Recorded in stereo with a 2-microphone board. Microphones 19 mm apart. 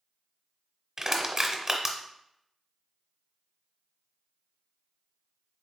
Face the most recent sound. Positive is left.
turn(degrees=-25)  # may be behind; listen again after turning